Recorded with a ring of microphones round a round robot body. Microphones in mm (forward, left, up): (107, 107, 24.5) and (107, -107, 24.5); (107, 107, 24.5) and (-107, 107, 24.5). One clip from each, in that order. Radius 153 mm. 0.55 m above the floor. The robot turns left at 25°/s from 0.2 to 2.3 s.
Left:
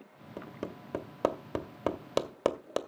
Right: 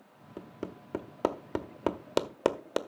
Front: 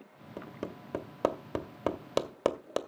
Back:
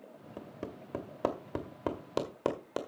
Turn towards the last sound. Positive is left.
turn(degrees=-10)